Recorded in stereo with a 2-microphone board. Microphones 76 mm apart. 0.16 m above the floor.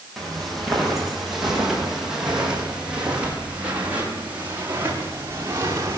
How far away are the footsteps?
About 9 m.